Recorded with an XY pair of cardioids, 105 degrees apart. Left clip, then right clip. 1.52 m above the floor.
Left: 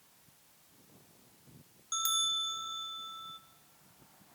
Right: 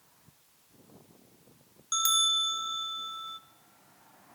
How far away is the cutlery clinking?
No cutlery clinking in this recording.